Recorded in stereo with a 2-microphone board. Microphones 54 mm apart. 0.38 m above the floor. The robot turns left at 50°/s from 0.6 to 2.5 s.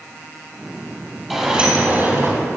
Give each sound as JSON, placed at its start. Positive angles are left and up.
{"t": 1.3, "sound": "a sliding door", "azimuth_deg": 0, "distance_m": 2.5}